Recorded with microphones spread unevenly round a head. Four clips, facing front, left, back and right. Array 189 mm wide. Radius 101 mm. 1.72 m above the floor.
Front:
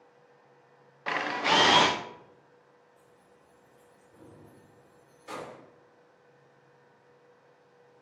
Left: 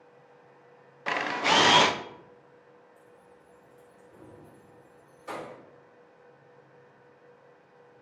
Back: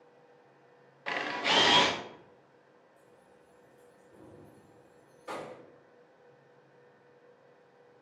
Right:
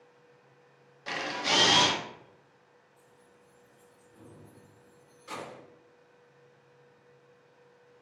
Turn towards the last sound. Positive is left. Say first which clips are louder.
# left 5 dB, even
turn(degrees=140)